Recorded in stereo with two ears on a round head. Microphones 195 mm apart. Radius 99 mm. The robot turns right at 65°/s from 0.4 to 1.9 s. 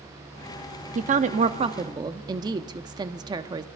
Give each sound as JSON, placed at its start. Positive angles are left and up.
{"t": 0.9, "sound": "a woman speaking", "azimuth_deg": -95, "distance_m": 0.8}